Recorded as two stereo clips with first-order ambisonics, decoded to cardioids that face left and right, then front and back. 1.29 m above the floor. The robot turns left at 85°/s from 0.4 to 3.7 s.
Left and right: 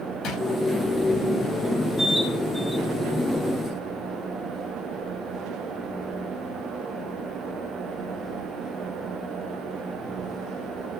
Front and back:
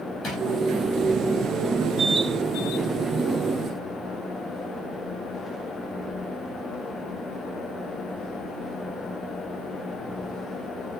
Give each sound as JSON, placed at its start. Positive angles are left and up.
{"t": 0.2, "sound": "a drawer", "azimuth_deg": 60, "distance_m": 0.8}